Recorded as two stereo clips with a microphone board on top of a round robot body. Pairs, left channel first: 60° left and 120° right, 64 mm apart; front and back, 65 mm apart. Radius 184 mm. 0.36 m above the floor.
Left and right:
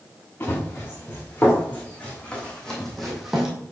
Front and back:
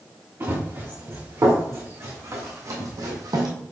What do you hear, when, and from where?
0.4 s running footsteps: 120° left, 3.5 m; by 3.5 s 160° left, 1.4 m